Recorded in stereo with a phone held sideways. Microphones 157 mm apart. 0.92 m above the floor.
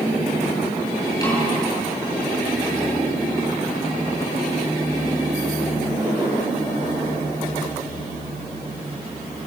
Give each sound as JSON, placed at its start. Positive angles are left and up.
{"t": 1.2, "sound": "a snare drum", "side_deg": 25, "distance_m": 10.0}